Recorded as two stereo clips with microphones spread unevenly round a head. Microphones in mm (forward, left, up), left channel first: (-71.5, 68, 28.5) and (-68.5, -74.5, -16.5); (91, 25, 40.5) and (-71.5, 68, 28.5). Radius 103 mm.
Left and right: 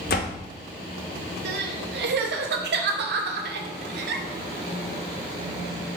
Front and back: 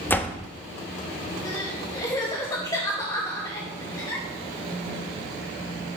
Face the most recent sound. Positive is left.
turn(degrees=-90)